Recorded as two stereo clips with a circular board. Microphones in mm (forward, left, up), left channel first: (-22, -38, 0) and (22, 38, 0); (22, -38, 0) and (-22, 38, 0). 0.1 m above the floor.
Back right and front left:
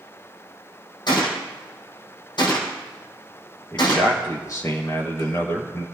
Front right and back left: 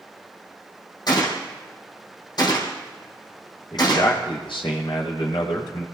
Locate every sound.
1.1 s a gunshot: 95° right, 4 m
3.7 s a man speaking: 70° right, 4 m